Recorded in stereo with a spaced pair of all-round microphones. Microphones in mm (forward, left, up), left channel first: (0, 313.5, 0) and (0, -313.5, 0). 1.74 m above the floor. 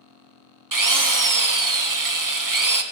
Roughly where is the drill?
Right.